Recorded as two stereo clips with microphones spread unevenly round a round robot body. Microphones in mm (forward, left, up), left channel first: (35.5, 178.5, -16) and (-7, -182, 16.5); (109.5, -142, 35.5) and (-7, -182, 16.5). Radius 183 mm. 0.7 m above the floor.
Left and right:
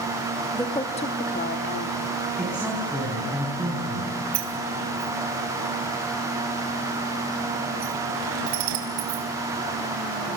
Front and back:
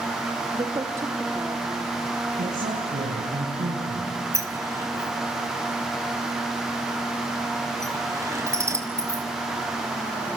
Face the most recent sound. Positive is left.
turn(degrees=-95)